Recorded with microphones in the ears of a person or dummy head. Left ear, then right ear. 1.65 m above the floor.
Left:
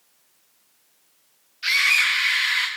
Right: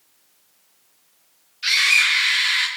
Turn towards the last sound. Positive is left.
turn(degrees=5)  # may be behind; listen again after turning